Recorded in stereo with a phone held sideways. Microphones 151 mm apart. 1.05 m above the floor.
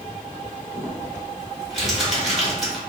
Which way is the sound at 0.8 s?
Centre (ahead or behind).